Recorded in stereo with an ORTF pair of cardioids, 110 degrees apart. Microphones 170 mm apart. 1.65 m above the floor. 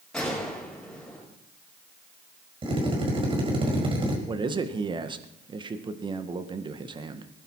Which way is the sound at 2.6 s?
30° right.